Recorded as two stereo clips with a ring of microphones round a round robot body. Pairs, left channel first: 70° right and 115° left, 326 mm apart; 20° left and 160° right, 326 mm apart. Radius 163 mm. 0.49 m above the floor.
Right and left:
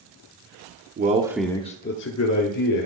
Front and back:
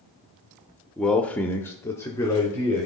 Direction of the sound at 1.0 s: 105° left.